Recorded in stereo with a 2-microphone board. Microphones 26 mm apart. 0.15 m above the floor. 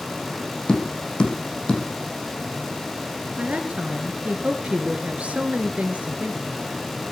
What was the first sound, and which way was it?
Tapping, 40° left (ahead or behind).